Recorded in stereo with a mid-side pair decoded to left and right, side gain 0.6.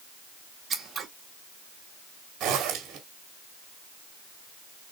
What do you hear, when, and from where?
0.7 s scissors: 30° right, 1.8 m
2.4 s a zipper: 60° right, 2 m